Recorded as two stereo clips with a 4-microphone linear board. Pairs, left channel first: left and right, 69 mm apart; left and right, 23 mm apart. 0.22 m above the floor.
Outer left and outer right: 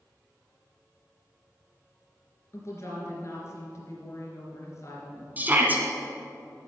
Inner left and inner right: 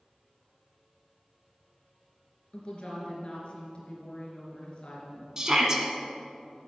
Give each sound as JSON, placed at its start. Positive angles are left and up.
{"t": 2.5, "sound": "a woman speaking", "side_deg": 45, "distance_m": 3.0}
{"t": 5.4, "sound": "a shout", "side_deg": -25, "distance_m": 1.8}